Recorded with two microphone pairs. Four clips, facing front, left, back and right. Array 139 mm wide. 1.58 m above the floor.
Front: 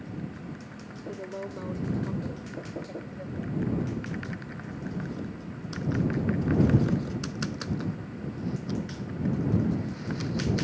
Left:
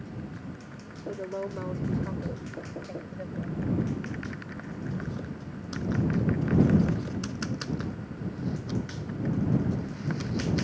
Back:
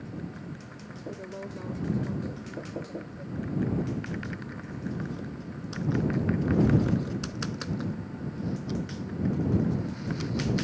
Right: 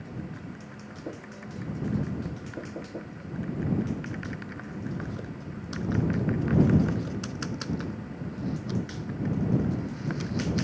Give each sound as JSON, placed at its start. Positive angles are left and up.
{"t": 1.1, "sound": "a woman speaking", "azimuth_deg": 70}